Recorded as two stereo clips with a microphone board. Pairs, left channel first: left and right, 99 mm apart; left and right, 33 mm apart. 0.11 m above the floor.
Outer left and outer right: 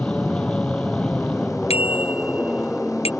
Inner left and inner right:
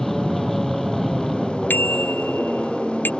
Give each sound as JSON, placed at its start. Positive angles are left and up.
{"t": 0.0, "sound": "an aircraft", "side_deg": 10}
{"t": 1.7, "sound": "a bicycle bell", "side_deg": 85}